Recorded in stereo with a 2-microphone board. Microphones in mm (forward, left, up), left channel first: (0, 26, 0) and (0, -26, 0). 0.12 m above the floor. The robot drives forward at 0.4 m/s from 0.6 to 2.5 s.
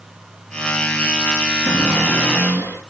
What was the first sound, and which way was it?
A cupboard door, 45° left (ahead or behind).